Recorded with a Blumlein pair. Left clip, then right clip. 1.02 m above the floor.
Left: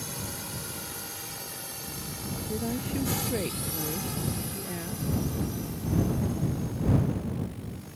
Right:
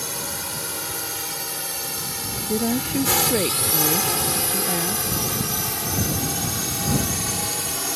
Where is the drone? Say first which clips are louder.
Right 8 dB; 25° right; by 8.0 s 45° right.